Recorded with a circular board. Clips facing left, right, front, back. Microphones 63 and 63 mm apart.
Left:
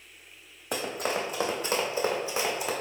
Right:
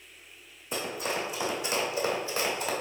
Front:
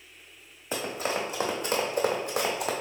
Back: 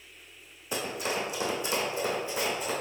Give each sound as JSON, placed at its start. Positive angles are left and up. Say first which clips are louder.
{"t": 0.7, "sound": "running footsteps", "louder": "left 2 dB, front 2 dB", "azimuth_deg": 60, "distance_m": 1.6}